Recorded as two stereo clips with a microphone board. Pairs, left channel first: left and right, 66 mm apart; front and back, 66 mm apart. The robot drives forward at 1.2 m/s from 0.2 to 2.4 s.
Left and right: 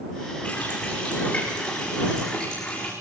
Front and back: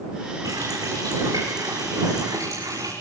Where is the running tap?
155° left, 9.5 m; by 2.9 s 160° left, 11.5 m.